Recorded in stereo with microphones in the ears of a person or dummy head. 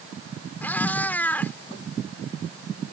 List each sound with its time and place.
0.6 s a cat meowing: 10° left (ahead or behind)